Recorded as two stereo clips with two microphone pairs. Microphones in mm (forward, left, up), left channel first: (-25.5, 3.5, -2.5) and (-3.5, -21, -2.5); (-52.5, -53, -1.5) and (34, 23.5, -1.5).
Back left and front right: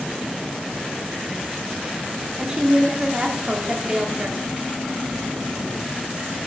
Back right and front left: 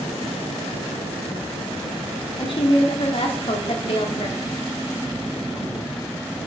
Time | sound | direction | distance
2.4 | a woman speaking | 105° right | 2 m